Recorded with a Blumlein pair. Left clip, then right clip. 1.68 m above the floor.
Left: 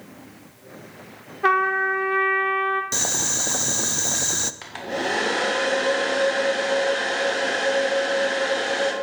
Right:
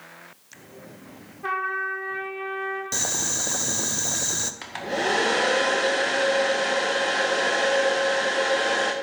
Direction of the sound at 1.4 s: 30° left.